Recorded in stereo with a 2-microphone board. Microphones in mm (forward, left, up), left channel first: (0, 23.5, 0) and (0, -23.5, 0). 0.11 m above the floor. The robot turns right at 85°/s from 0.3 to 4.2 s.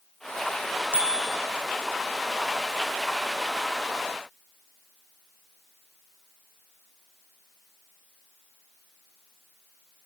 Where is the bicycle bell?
40° right, 4 m; by 1.4 s 5° right, 4 m.